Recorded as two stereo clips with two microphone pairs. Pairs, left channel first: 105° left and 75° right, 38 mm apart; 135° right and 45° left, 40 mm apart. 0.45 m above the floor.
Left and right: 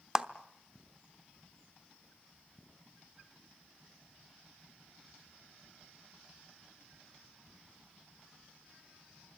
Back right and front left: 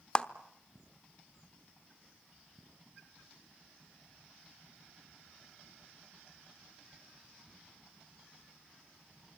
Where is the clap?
120° right, 0.9 m.